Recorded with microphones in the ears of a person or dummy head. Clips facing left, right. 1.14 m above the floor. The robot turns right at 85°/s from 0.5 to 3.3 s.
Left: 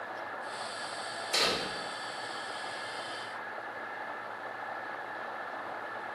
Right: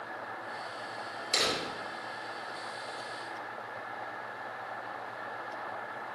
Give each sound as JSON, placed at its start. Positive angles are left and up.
{"t": 1.3, "sound": "a door slam", "azimuth_deg": -25, "distance_m": 2.5}